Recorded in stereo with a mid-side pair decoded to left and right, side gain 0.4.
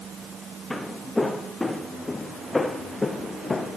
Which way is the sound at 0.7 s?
10° left.